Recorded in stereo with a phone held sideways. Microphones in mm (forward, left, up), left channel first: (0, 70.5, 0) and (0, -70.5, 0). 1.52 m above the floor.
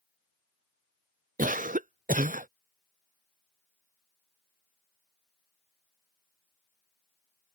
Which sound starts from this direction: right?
A cough, at 1.4 s.